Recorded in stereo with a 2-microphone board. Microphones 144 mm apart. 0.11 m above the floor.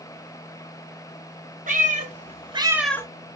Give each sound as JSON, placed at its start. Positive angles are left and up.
{"t": 1.7, "sound": "a cat meowing", "side_deg": -70, "distance_m": 1.4}